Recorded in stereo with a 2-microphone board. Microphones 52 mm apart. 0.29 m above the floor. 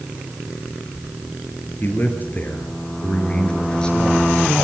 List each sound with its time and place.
1.8 s a man speaking: 45° left (ahead or behind), 5.5 m; by 4.3 s 10° left (ahead or behind), 4.5 m